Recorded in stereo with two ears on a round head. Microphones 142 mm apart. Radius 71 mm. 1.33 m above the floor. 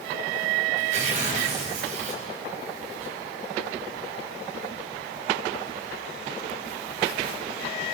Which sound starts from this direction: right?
Tearing paper, at 0.8 s.